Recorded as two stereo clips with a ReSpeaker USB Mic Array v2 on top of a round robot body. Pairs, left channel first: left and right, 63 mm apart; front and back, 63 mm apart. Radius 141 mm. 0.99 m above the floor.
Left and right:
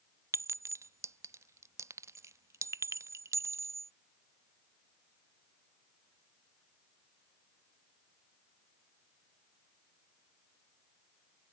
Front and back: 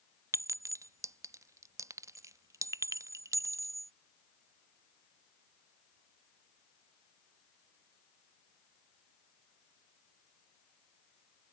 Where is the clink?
135° right.